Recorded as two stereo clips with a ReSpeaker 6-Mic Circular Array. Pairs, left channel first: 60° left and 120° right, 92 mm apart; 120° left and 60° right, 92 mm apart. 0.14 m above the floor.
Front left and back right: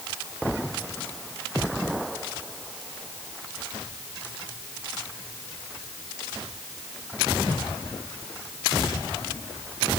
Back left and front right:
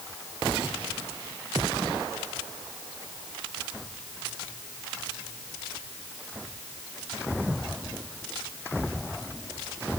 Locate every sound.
Only background noise.